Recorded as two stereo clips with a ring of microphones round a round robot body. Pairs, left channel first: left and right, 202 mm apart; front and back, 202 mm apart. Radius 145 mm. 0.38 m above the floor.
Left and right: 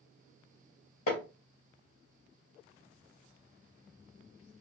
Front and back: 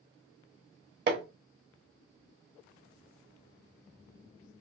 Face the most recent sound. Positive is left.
turn(degrees=145)